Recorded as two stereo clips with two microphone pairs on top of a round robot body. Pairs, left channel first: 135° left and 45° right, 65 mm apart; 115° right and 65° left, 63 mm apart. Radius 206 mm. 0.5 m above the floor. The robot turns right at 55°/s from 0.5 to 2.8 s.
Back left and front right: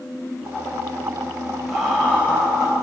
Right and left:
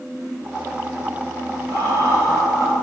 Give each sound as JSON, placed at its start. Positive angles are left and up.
{"t": 1.7, "sound": "laughter", "azimuth_deg": 45, "distance_m": 3.5}